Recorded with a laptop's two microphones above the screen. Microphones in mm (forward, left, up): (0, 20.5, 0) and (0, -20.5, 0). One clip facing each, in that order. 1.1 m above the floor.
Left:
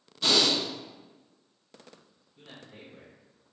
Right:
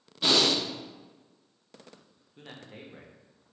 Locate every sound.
0.2 s breathing: 15° right (ahead or behind), 0.8 m
2.4 s a man speaking: 55° right (ahead or behind), 0.8 m